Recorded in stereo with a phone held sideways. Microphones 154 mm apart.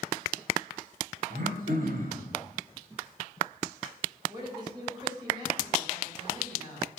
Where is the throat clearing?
70° right (ahead or behind), 2 m.